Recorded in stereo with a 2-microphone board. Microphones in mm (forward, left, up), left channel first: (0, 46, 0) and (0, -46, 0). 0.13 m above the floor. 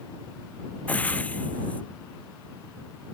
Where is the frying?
15° left (ahead or behind).